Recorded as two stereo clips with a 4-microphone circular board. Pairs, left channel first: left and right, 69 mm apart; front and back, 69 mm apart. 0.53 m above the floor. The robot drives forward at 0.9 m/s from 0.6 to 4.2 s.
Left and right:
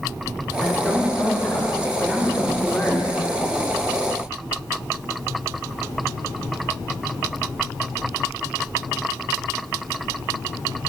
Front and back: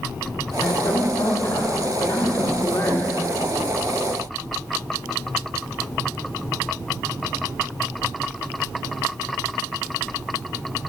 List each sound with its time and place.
0.6 s a woman speaking: 10° left, 3 m; by 3.1 s 45° left, 0.9 m